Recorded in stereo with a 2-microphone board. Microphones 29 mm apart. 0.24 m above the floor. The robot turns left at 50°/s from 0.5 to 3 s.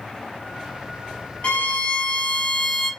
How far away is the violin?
About 1.2 m.